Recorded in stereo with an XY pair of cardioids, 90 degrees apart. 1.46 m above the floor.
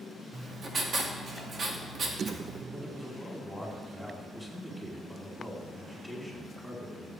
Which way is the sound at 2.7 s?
5° right.